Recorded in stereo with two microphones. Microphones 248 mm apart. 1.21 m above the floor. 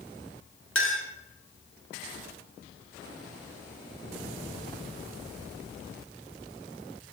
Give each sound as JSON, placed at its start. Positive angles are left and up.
{"t": 0.8, "sound": "a clink", "side_deg": 55, "distance_m": 1.0}